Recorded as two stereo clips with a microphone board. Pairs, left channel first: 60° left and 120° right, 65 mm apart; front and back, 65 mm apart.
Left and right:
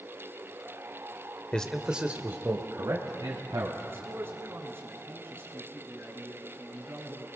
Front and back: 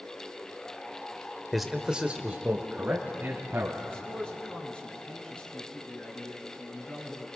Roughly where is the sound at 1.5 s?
Left.